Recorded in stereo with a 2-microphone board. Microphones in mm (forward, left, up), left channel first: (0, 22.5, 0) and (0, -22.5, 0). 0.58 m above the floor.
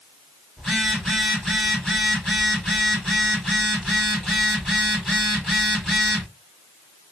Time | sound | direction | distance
0.6 | a phone buzzing | 5° left (ahead or behind) | 3.5 m